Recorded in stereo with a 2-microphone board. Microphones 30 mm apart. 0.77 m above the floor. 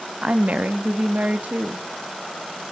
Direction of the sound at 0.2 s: 50° right (ahead or behind).